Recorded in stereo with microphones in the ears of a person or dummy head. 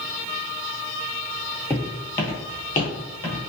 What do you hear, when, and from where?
1.7 s footsteps: 5° left (ahead or behind), 1.4 m; by 3.4 s 30° left (ahead or behind), 1.4 m